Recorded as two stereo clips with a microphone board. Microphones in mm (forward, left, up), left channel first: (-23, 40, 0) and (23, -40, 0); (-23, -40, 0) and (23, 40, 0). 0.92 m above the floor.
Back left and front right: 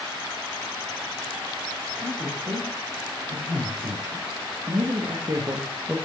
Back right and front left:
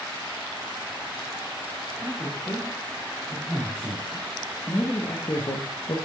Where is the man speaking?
40° right, 4 m; by 6.0 s 140° right, 0.9 m.